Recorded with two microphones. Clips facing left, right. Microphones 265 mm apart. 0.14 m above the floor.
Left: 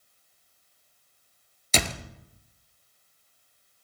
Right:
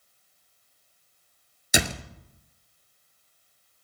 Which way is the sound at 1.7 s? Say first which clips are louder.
Right 2 dB; 10° right (ahead or behind).